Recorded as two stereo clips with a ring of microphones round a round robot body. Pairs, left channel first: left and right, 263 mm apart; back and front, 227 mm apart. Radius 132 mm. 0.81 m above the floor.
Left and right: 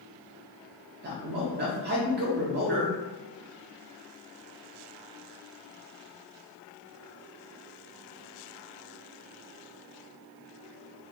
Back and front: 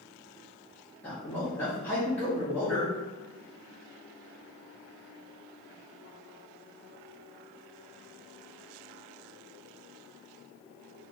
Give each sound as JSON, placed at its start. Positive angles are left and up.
{"t": 1.0, "sound": "a man speaking", "azimuth_deg": -105, "distance_m": 0.5}